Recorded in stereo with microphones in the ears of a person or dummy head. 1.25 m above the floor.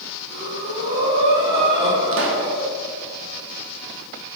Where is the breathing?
80° right, 2 m.